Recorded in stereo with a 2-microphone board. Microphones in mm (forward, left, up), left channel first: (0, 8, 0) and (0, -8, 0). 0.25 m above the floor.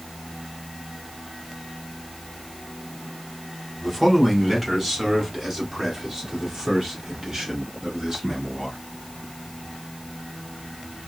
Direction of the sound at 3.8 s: 5° right (ahead or behind).